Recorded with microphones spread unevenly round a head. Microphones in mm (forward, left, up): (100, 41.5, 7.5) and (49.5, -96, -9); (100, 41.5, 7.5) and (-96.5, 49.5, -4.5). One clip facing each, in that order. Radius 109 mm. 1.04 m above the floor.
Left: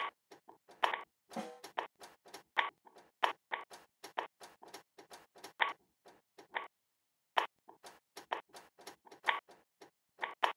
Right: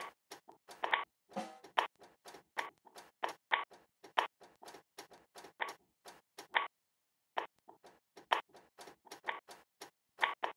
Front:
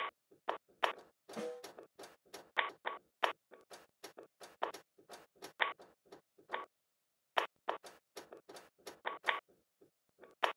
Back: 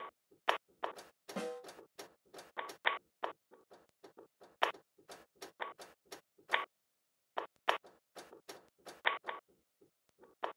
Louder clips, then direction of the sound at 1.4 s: Even, back 1 dB; 175° left.